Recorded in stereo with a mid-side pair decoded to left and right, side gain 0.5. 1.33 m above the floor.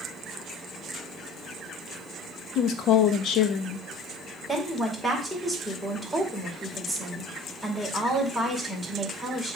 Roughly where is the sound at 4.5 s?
Ahead.